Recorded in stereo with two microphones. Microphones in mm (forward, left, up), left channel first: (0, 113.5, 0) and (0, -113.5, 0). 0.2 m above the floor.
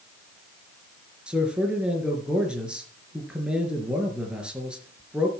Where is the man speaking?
5° right (ahead or behind), 3.5 m.